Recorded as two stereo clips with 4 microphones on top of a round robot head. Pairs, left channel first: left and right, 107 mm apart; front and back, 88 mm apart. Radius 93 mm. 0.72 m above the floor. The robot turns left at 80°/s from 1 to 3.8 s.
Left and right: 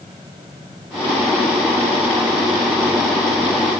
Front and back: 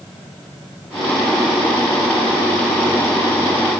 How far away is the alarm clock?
I don't hear an alarm clock.